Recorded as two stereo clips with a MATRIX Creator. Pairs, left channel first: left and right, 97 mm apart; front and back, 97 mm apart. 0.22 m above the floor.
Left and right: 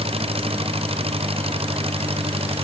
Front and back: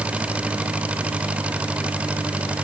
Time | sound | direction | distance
0.0 | an engine running | 100° right | ?